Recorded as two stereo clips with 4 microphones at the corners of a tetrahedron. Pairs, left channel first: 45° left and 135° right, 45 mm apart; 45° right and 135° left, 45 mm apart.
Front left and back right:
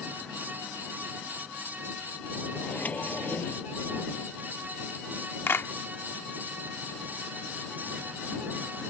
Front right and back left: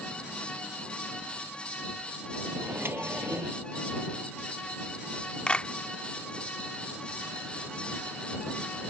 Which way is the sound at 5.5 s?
15° left.